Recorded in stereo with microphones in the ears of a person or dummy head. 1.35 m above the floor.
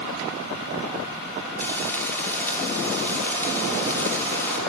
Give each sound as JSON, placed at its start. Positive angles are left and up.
{"t": 1.6, "sound": "frying", "side_deg": 15, "distance_m": 2.5}